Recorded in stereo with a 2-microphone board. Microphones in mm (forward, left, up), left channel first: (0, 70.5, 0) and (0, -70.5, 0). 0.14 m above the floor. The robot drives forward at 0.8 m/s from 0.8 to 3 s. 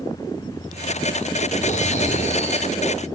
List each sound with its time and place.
1.6 s snoring: 55° left (ahead or behind), 2.5 m; by 3.1 s 45° left (ahead or behind), 3 m